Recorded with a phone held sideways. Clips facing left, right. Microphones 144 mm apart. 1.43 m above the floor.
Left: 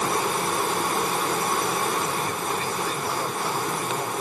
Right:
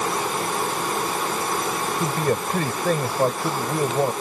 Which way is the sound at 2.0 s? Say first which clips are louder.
Right 5 dB; 60° right (ahead or behind).